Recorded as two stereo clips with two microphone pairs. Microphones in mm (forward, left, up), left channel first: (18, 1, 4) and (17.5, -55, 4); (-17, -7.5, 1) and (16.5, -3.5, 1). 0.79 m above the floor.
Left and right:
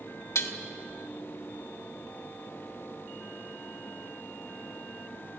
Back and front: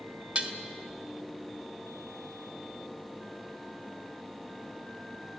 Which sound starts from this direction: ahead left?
Dishes clattering, at 0.3 s.